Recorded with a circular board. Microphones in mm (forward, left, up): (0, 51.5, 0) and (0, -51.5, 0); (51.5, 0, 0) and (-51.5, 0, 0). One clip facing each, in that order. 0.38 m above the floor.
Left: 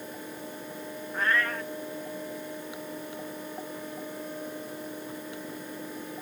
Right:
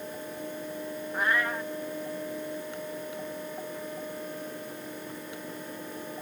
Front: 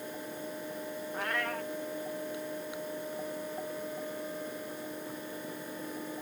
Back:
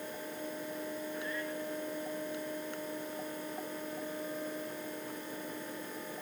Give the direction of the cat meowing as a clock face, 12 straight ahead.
12 o'clock.